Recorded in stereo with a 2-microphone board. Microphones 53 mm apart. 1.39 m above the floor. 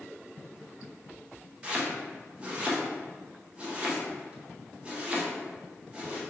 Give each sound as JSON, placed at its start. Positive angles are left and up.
{"t": 1.6, "sound": "chopping", "side_deg": -25, "distance_m": 0.8}